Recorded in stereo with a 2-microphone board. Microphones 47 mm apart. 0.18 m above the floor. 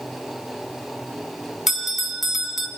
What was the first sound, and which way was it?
A bell, 5° right (ahead or behind).